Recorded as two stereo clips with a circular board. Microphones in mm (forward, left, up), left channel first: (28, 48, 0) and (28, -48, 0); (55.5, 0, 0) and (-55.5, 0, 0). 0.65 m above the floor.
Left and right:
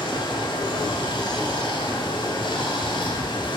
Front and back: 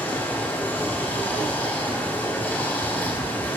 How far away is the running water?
About 1.6 m.